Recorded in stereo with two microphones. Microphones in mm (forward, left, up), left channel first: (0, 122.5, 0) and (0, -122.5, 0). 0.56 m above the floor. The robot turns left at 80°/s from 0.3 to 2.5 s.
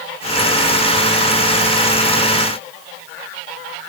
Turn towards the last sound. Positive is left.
No sound to turn to.